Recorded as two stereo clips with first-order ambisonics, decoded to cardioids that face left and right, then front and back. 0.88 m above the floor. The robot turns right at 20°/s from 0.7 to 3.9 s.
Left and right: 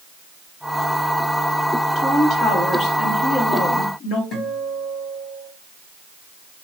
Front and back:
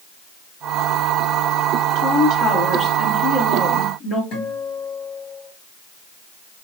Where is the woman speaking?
30° left, 1.3 m; by 4.2 s 70° left, 1.3 m.